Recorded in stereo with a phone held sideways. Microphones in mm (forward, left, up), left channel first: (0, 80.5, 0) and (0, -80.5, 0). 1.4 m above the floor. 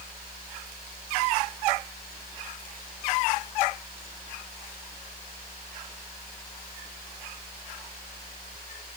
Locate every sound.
Only background noise.